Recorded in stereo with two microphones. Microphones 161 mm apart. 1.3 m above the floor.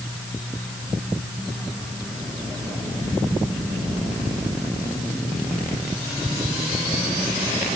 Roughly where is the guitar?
I don't hear a guitar.